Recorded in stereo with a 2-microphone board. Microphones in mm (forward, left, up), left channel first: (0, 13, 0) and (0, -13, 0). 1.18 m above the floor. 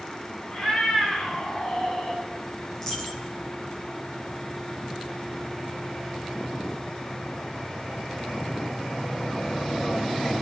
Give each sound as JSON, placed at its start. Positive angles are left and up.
{"t": 0.5, "sound": "a cat meowing", "side_deg": 30, "distance_m": 5.0}
{"t": 2.7, "sound": "a dropped coin", "side_deg": 20, "distance_m": 5.0}